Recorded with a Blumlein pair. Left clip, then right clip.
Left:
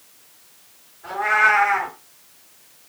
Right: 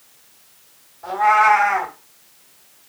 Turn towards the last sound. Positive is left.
turn(degrees=-40)